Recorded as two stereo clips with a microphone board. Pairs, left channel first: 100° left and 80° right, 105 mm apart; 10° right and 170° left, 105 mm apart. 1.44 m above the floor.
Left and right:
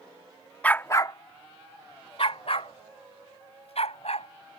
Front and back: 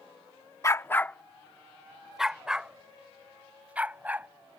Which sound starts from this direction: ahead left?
A dog barking, at 0.6 s.